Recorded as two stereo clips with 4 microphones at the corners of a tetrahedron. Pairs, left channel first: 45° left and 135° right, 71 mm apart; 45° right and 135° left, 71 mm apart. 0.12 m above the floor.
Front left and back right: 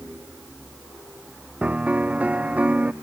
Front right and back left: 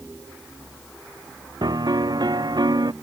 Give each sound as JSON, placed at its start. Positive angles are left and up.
{"t": 1.6, "sound": "a piano", "azimuth_deg": 155}